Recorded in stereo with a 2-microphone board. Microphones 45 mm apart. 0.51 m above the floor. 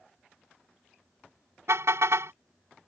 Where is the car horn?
80° right.